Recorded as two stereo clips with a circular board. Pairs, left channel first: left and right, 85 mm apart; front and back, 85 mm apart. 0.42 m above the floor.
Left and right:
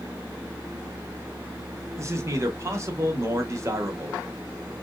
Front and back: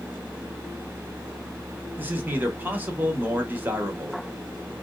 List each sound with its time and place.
2.0 s a man speaking: 120° right, 1.1 m